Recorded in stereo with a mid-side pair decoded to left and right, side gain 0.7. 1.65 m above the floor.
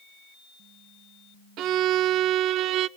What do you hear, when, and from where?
1.6 s a violin: 55° right, 0.5 m